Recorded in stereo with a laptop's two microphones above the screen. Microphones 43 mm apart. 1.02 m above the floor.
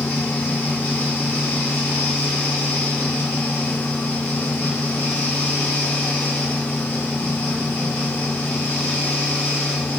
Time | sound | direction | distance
0.0 | a fan | 85° left | 1.8 m